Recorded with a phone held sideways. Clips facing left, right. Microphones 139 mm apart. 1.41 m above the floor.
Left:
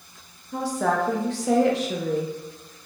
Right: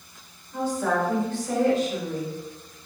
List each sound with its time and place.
0.5 s a woman speaking: 80° left, 0.8 m